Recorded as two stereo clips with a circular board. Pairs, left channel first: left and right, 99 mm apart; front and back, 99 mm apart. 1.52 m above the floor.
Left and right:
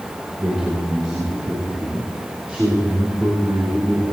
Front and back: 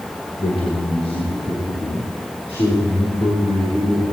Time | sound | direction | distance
0.4 | a man speaking | 10° right | 2.5 m